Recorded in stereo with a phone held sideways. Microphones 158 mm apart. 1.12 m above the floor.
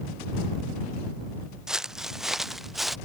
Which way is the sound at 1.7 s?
5° right (ahead or behind).